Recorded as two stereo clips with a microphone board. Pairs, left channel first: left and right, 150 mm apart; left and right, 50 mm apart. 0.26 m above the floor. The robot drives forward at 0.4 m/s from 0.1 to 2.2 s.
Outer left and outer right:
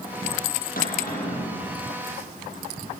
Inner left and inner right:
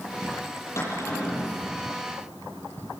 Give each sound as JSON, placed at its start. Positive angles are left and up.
{"t": 0.8, "sound": "a cupboard door", "side_deg": 70, "distance_m": 8.0}